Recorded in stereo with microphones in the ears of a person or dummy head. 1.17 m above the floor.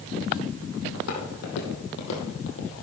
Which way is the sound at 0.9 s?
70° left (ahead or behind).